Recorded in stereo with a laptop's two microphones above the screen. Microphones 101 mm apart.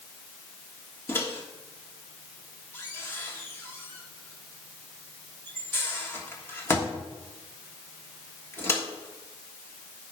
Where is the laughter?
No laughter in this recording.